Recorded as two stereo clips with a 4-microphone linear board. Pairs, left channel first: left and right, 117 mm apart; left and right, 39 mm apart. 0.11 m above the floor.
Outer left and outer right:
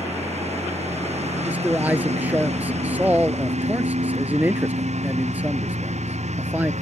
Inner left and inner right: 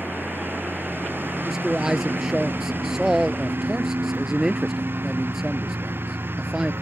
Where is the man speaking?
15° right (ahead or behind).